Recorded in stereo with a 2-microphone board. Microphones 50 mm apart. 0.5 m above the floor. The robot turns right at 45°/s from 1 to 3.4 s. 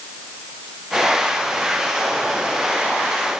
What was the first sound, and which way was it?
Only background noise.